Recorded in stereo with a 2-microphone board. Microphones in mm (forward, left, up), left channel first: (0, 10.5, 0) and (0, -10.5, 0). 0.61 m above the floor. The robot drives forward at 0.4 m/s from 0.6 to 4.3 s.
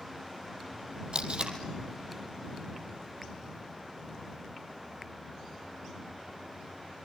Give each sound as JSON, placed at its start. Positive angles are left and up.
{"t": 1.1, "sound": "tape being pulled", "side_deg": -50, "distance_m": 3.0}